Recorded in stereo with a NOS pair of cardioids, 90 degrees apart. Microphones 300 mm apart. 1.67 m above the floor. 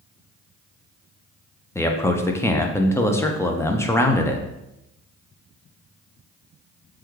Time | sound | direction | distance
1.8 | a man speaking | 10° left | 0.5 m